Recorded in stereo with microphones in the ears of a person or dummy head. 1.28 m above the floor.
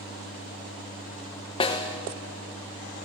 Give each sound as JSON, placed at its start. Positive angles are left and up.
{"t": 1.6, "sound": "a snare drum", "side_deg": 25, "distance_m": 0.9}